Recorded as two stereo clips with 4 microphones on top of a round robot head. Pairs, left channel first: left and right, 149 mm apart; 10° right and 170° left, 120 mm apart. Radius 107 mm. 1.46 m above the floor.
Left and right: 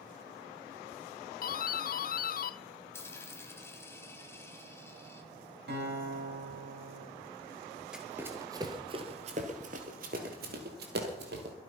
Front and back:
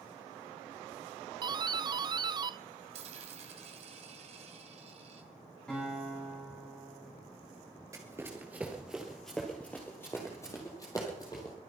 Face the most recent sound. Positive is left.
turn(degrees=-80)